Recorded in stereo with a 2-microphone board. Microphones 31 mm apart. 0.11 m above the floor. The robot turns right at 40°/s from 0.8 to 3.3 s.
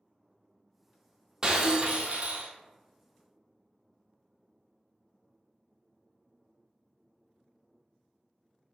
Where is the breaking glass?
155° right, 0.7 m; by 2.5 s 110° right, 0.7 m.